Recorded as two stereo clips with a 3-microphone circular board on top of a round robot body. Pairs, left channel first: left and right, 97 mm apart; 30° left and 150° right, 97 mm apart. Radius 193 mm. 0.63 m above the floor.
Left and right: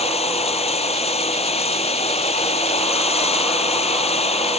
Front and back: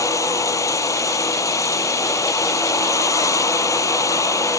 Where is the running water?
90° left.